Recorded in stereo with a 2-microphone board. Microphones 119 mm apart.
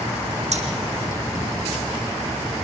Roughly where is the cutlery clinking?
Right.